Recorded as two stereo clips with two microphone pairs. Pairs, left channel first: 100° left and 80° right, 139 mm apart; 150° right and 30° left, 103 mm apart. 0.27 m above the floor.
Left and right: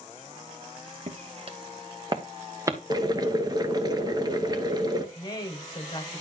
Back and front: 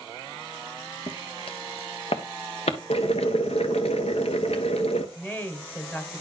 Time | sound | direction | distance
1.1 | footsteps | 115° right | 1.4 m
2.9 | boiling | 140° right | 1.1 m
5.2 | a woman speaking | 145° left | 1.5 m